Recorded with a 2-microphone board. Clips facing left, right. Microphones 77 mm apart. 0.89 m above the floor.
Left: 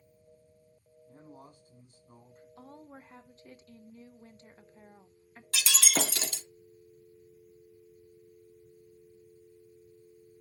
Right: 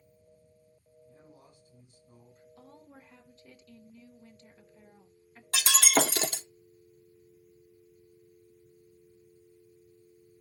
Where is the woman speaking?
35° left (ahead or behind), 1.0 m.